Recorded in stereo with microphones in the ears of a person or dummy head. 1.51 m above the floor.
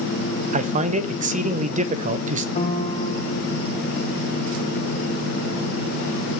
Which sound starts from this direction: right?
A man speaking, at 0.5 s.